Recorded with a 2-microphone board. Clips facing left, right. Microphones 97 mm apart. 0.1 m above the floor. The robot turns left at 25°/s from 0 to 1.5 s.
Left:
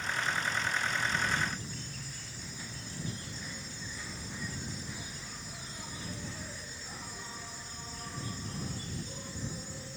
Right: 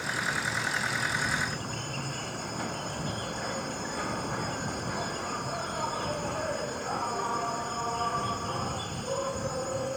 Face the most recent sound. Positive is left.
turn(degrees=-120)